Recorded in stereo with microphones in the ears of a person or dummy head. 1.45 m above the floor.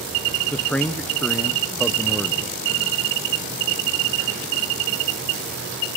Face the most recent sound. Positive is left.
turn(degrees=10)  # may be behind; listen again after turning